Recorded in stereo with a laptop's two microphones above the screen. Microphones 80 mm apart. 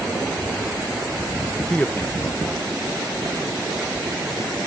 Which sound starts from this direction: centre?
A man speaking, at 1.7 s.